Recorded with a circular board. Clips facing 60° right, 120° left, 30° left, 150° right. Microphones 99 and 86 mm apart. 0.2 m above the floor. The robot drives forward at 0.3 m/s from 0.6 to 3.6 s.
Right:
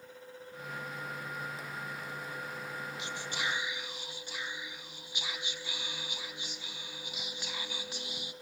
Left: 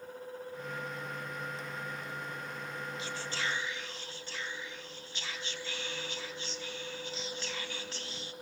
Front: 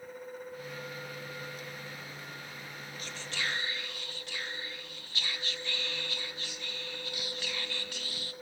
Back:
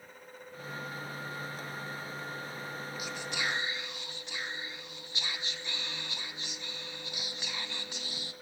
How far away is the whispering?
About 1.0 m.